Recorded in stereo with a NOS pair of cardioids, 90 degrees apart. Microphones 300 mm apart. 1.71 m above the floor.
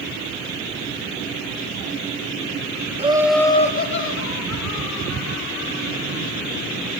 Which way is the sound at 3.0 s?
20° right.